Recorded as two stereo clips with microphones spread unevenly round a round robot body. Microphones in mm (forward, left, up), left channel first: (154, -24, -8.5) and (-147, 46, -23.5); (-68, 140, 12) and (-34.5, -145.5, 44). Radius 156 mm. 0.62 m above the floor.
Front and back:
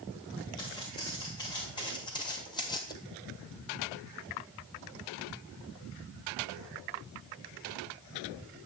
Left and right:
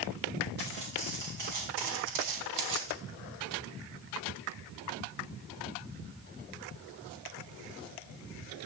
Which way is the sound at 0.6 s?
90° right.